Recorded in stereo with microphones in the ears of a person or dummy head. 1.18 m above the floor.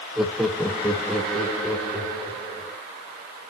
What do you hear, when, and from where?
0.2 s laughter: centre (ahead or behind), 1.0 m; by 2.8 s 5° left (ahead or behind), 5 m